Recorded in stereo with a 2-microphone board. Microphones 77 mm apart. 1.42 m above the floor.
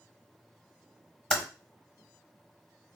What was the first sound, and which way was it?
Typing on a keyboard, 5° left (ahead or behind).